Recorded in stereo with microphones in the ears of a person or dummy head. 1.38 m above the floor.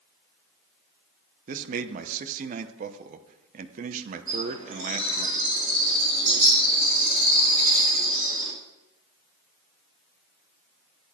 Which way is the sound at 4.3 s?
40° right (ahead or behind).